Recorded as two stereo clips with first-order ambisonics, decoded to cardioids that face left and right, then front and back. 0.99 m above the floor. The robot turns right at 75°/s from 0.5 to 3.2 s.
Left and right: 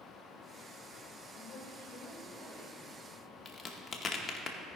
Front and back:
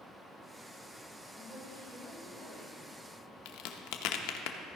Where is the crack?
15° left, 0.8 m.